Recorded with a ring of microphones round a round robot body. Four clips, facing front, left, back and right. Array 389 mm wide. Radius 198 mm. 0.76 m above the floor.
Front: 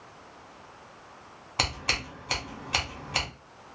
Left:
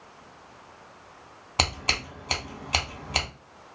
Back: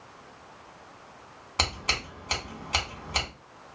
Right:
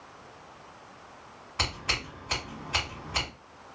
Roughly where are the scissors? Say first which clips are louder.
Left 4 dB, even; left.